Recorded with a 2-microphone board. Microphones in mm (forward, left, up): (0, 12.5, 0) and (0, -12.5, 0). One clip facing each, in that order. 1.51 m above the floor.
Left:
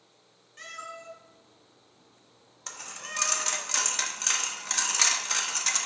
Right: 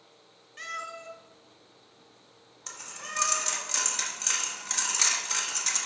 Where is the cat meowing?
20° right (ahead or behind), 1.2 m; by 3.7 s 35° right (ahead or behind), 4.5 m.